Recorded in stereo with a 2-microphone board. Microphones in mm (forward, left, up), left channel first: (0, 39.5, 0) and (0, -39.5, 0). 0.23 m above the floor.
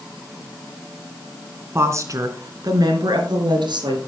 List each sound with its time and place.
1.8 s a woman speaking: 35° right (ahead or behind), 2.5 m; by 4.0 s 75° right (ahead or behind), 4.5 m